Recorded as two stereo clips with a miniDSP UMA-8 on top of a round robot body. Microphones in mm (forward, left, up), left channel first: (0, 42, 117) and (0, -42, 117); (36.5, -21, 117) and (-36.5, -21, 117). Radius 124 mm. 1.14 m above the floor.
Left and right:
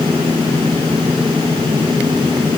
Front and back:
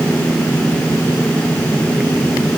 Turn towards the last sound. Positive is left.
No sound to turn to.